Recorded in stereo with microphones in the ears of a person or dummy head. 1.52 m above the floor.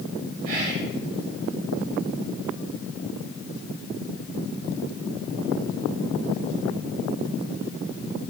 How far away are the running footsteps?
No running footsteps in this recording.